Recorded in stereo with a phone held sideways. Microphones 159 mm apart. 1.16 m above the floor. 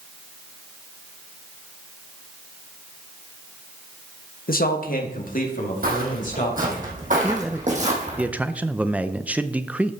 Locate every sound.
4.5 s a man speaking: 65° left (ahead or behind), 1.0 m; by 6.8 s 55° left (ahead or behind), 3.5 m
5.8 s footsteps: 65° right (ahead or behind), 3 m; by 8.2 s 45° right (ahead or behind), 3.5 m
7.2 s a man speaking: 10° right (ahead or behind), 0.5 m